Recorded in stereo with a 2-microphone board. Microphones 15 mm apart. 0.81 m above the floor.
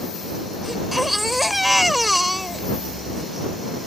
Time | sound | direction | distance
0.6 | a baby crying | 10° right (ahead or behind) | ?